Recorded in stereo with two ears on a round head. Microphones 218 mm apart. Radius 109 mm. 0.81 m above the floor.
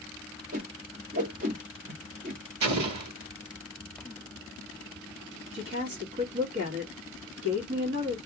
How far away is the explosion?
About 1.0 m.